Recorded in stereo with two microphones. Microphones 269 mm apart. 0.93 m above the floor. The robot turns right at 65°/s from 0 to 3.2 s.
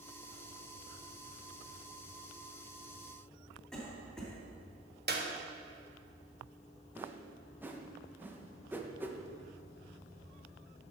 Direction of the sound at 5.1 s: 40° right (ahead or behind).